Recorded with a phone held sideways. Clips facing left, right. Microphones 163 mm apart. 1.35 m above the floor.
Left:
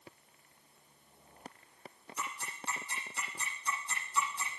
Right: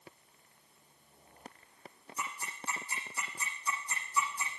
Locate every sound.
2.2 s ticking: 85° left, 9 m